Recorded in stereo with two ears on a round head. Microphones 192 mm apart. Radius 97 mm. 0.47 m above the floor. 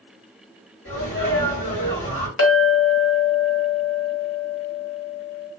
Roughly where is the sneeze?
Left.